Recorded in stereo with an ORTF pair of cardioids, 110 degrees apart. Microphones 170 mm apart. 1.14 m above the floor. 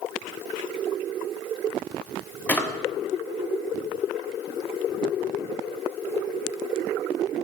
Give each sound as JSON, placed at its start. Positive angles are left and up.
{"t": 2.5, "sound": "a drawer", "azimuth_deg": 10, "distance_m": 0.8}